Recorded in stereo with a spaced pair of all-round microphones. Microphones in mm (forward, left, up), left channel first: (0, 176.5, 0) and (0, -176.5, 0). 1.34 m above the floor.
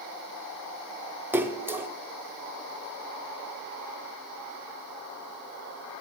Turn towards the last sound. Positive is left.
turn(degrees=-5)  # may be behind; listen again after turning